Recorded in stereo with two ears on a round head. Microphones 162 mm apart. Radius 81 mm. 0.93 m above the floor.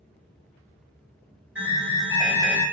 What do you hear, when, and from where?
1.6 s an alarm: 10° right (ahead or behind), 1.9 m